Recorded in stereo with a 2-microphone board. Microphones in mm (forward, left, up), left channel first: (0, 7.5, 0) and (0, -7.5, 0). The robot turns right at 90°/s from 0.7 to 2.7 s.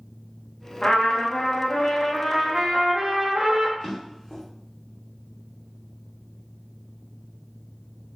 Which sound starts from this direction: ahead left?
A trumpet, at 0.8 s.